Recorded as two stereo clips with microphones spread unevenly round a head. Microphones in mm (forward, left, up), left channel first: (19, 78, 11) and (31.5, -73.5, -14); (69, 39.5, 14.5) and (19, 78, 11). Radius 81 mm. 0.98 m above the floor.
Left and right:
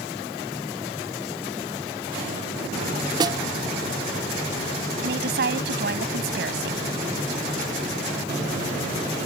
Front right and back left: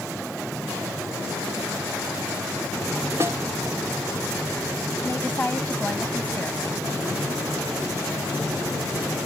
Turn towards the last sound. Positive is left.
turn(degrees=-115)